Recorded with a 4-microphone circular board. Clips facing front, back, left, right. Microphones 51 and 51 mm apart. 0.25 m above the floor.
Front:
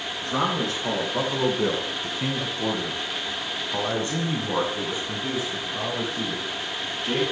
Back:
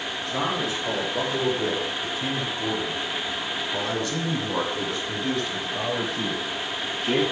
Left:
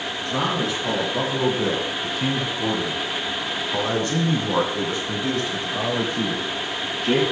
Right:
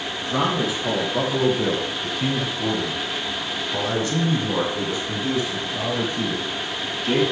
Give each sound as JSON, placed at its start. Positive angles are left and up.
{"t": 0.2, "sound": "a man speaking", "azimuth_deg": -10, "distance_m": 3.5}